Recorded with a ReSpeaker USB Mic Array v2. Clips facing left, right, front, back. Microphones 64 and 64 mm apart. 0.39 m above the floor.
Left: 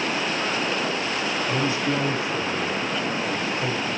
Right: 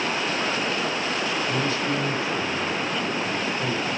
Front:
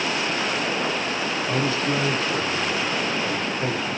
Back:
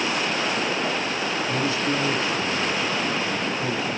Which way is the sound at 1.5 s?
25° left.